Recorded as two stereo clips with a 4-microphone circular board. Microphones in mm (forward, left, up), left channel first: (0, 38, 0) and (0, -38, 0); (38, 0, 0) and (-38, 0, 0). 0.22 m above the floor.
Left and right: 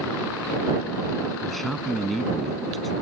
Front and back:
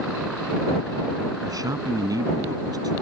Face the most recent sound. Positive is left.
turn(degrees=175)